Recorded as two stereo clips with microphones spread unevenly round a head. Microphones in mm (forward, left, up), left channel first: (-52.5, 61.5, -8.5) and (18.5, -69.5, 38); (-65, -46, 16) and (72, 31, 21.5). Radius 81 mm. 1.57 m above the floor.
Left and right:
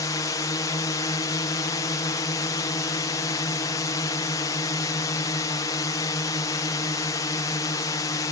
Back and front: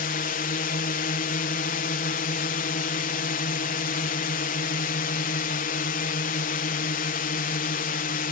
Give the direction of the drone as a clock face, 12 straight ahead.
6 o'clock.